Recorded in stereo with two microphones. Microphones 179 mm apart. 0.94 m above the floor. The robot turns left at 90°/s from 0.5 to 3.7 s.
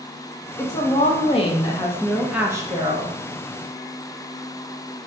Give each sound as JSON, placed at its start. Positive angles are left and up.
{"t": 0.6, "sound": "a woman speaking", "azimuth_deg": 145, "distance_m": 0.9}